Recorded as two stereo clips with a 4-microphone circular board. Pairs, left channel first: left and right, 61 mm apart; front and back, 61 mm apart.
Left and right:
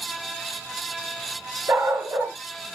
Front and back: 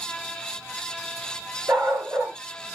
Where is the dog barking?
135° right, 2 m.